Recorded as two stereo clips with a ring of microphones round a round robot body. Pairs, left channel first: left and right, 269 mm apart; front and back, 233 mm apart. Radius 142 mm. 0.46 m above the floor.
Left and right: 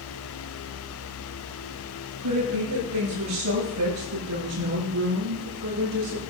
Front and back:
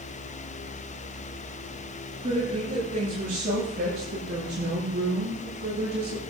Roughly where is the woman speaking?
Right.